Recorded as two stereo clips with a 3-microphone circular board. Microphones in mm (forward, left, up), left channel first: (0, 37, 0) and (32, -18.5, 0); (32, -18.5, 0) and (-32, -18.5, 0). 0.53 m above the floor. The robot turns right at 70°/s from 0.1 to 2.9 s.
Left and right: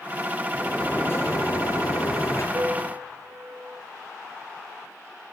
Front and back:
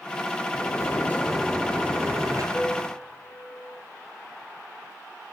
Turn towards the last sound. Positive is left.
turn(degrees=-60)